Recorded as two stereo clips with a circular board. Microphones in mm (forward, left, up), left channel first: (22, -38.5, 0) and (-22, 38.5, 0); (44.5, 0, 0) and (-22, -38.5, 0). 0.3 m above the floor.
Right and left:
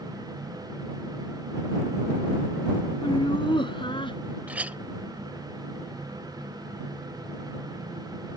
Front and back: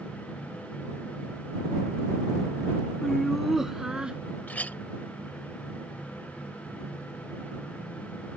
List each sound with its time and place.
3.0 s laughter: 55° right; by 4.2 s 70° right
4.5 s a clink: 70° left